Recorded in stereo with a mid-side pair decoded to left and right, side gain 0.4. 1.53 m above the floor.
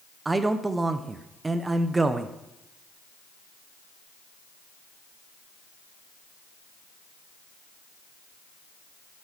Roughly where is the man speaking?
Ahead right.